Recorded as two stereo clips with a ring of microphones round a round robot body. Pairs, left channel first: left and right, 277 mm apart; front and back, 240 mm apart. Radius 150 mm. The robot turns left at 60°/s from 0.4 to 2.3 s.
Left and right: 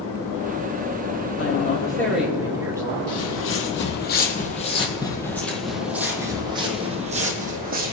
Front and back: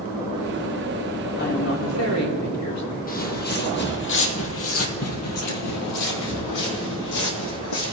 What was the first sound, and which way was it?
A woman speaking, 45° left.